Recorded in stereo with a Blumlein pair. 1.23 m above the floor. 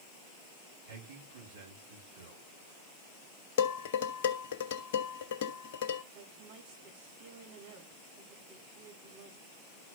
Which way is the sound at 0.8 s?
65° right.